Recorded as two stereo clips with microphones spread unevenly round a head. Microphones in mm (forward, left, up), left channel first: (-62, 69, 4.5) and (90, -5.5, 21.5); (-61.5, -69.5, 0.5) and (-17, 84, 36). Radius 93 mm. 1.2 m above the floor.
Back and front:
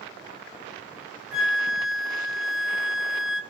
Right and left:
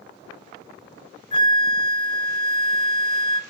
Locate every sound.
1.3 s a flute: 120° right, 0.6 m